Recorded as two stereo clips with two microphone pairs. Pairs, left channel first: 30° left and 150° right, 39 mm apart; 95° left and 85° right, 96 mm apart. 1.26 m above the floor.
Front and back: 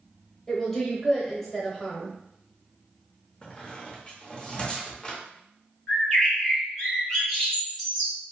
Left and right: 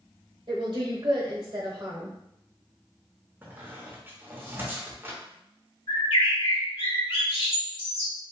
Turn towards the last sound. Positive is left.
turn(degrees=105)